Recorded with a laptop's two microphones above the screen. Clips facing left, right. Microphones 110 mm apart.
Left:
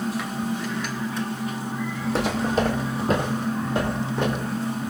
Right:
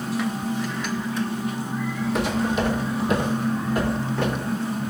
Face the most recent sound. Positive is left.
turn(degrees=10)  # may be behind; listen again after turning